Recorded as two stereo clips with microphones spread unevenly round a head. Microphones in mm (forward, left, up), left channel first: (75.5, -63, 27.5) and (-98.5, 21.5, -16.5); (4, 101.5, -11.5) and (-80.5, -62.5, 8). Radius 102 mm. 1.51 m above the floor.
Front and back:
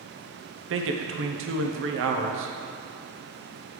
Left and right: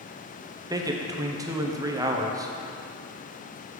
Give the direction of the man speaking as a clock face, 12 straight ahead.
6 o'clock.